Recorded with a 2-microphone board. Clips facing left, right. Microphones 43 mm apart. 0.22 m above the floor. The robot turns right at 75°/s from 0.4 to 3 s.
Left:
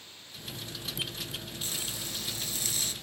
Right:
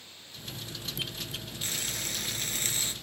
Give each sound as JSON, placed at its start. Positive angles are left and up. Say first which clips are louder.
{"t": 1.6, "sound": "frying", "louder": "right 4 dB", "azimuth_deg": -130, "distance_m": 1.1}